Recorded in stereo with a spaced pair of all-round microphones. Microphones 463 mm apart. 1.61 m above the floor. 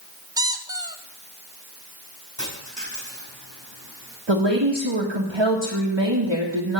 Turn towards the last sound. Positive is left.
turn(degrees=-75)  # may be behind; listen again after turning